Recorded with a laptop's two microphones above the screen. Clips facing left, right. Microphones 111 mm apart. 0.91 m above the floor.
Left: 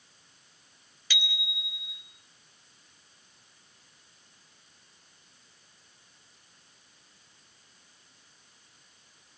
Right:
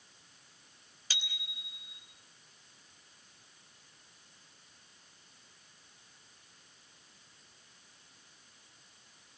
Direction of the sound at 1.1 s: 35° right (ahead or behind).